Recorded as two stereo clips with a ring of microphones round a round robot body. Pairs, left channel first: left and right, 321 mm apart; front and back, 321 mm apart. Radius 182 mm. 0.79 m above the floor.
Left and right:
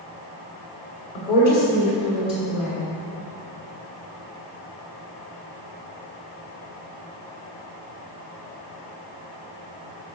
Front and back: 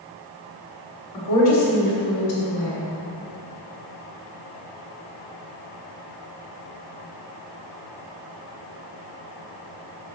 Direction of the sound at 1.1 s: 5° right.